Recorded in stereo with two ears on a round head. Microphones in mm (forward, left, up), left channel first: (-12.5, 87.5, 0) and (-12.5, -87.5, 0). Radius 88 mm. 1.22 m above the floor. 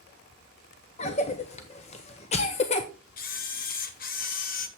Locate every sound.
1.0 s a cough: 35° left (ahead or behind), 0.7 m
3.2 s a camera shutter: 50° left (ahead or behind), 1.1 m